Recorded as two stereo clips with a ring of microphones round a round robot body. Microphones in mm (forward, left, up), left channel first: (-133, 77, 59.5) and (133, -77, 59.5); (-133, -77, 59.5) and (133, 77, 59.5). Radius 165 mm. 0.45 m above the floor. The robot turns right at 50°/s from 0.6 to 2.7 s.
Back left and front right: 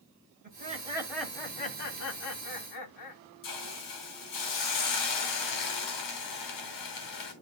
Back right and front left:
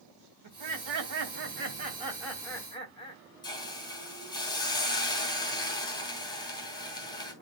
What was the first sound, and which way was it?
Laughter, 30° left.